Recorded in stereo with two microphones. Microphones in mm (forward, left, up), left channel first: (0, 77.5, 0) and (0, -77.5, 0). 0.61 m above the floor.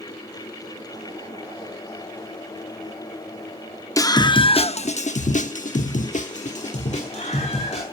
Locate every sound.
4.0 s a scream: 20° left (ahead or behind), 0.9 m; by 7.8 s 45° left (ahead or behind), 2 m